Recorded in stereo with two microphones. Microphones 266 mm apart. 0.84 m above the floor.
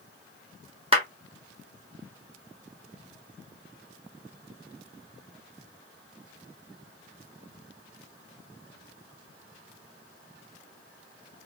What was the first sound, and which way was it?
A clap, 20° right (ahead or behind).